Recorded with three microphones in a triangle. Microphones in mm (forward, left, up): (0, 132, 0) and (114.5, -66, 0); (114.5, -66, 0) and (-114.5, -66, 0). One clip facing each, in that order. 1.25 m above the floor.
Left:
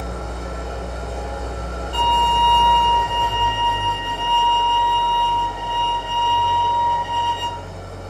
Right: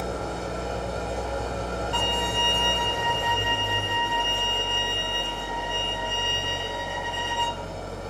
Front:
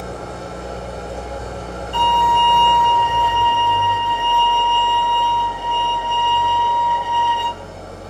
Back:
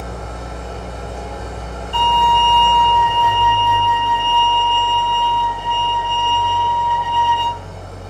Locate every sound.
0.0 s an engine running: 30° right, 0.8 m
1.9 s a violin: 75° left, 1.6 m